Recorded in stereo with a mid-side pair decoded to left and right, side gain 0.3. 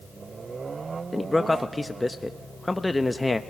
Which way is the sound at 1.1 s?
20° left.